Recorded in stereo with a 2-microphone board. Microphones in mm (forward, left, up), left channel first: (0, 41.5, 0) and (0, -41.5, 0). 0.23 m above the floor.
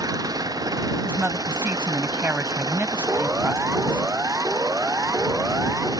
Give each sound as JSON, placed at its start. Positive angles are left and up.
{"t": 0.0, "sound": "an engine running", "side_deg": -50}
{"t": 1.0, "sound": "a woman speaking", "side_deg": -25}
{"t": 3.1, "sound": "a siren", "side_deg": -30}